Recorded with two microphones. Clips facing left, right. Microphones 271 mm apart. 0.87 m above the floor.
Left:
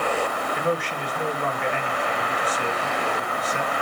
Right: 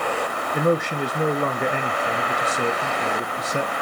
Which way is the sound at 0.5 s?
45° right (ahead or behind).